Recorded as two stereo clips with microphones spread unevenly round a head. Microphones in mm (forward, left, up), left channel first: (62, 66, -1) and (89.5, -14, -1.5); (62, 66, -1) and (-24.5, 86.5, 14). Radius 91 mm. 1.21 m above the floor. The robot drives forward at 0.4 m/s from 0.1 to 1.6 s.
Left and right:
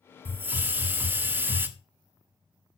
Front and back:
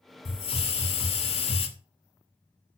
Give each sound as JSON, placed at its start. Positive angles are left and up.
{"t": 0.2, "sound": "a hiss", "azimuth_deg": -5, "distance_m": 1.6}